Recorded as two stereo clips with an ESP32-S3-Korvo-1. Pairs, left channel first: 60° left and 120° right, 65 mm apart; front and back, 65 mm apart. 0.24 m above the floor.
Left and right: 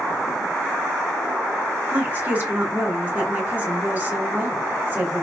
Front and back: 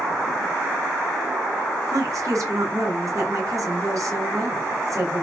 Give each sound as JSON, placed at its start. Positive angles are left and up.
{"t": 1.9, "sound": "a woman speaking", "azimuth_deg": 180, "distance_m": 2.5}